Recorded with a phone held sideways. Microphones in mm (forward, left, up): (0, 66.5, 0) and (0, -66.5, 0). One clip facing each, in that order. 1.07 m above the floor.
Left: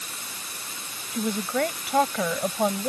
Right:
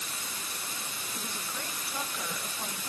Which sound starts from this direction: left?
A woman speaking, at 1.1 s.